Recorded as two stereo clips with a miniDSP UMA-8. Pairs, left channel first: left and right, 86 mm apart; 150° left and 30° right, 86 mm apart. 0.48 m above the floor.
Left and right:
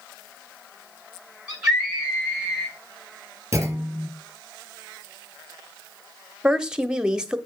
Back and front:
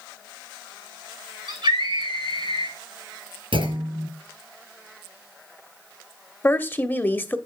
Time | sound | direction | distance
1.5 | a scream | 5° right | 6 m
3.5 | a clunk | 30° right | 3 m
6.4 | a woman speaking | 160° right | 0.9 m